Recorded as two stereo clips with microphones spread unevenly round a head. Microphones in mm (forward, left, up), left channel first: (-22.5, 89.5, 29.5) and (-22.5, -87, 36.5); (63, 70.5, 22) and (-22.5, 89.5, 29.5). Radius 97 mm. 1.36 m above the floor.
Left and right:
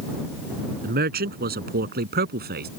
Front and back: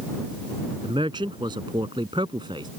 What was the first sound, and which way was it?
A man speaking, 125° right.